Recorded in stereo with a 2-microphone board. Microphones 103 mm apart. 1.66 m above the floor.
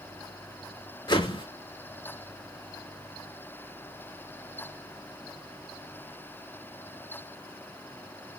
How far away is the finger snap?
No finger snap in this recording.